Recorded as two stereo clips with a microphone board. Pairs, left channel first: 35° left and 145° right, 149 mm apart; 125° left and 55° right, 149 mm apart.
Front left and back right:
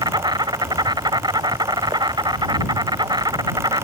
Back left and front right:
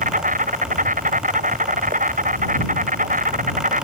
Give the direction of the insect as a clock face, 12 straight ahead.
3 o'clock.